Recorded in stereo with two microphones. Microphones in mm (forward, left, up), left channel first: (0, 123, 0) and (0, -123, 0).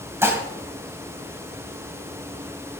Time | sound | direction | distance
0.2 | dishes clattering | 10° right (ahead or behind) | 2 m